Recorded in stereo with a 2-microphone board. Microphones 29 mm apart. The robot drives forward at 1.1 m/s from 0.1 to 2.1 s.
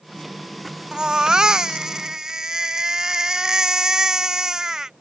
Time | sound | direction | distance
0.9 | a baby crying | 25° right (ahead or behind) | ?